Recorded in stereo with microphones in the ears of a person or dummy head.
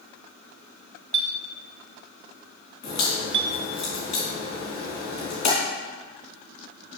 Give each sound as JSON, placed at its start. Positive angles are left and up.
{"t": 1.1, "sound": "a clink", "side_deg": -60, "distance_m": 1.0}
{"t": 2.8, "sound": "a crack", "side_deg": 45, "distance_m": 3.0}